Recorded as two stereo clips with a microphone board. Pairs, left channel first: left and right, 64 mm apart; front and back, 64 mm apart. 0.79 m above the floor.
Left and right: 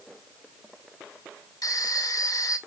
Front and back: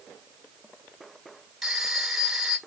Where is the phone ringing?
95° left, 1.7 m.